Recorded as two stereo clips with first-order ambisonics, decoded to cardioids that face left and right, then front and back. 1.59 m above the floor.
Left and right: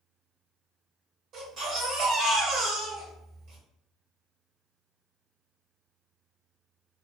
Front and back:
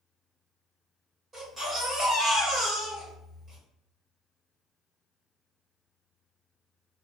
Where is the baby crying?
110° right, 1.7 m.